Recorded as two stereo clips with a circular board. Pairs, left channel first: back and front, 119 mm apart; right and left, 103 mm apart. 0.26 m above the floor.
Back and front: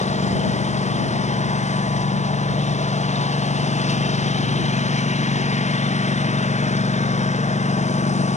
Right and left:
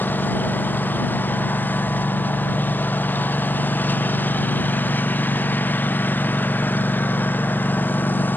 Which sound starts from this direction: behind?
A lawn mower, at 0.0 s.